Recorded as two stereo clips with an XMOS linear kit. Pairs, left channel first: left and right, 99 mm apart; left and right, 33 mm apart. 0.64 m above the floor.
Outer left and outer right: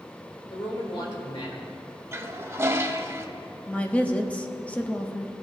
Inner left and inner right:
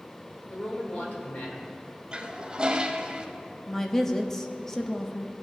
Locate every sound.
0.5 s a man speaking: 60° left (ahead or behind), 2.5 m; by 1.6 s 65° left (ahead or behind), 2.5 m
2.1 s a toilet flushing: 25° right (ahead or behind), 0.7 m
3.7 s a woman speaking: 15° left (ahead or behind), 0.7 m